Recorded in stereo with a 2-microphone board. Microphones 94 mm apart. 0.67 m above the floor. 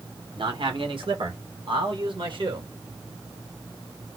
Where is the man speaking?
60° right (ahead or behind), 2.5 m.